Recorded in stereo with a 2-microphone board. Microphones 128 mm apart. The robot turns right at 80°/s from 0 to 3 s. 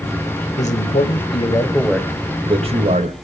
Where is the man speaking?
70° left, 1.9 m; by 3.1 s 95° right, 1.9 m.